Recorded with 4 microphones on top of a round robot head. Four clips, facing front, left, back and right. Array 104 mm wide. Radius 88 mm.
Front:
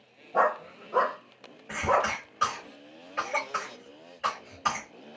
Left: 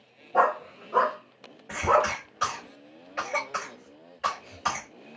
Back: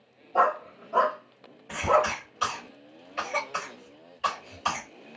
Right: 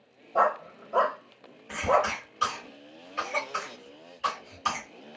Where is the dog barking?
50° left, 1.8 m; by 2.1 s 80° left, 1.3 m.